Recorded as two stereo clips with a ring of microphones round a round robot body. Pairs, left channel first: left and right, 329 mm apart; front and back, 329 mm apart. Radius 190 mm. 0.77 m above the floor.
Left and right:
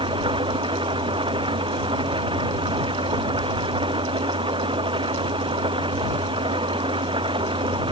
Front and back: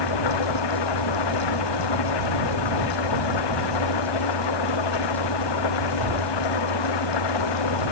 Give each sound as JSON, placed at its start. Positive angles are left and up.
{"t": 0.0, "sound": "an engine running", "azimuth_deg": -15}